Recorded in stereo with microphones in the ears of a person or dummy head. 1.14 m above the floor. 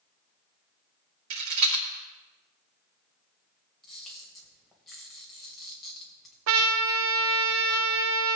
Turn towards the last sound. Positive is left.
turn(degrees=-85)